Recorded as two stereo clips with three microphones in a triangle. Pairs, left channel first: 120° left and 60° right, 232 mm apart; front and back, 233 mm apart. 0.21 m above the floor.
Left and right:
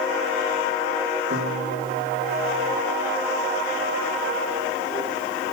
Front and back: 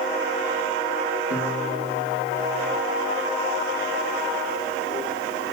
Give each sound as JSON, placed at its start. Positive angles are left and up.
{"t": 1.3, "sound": "a piano", "azimuth_deg": -30, "distance_m": 7.0}